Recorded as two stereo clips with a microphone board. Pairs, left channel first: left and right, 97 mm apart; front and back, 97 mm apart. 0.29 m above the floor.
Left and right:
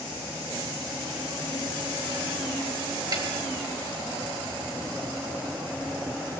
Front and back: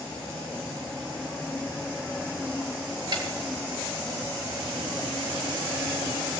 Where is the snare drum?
140° right, 5 m.